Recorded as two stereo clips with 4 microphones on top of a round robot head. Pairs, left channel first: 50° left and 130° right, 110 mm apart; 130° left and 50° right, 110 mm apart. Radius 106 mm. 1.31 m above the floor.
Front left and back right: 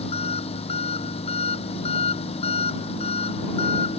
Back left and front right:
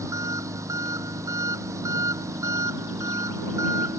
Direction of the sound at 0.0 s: 15° left.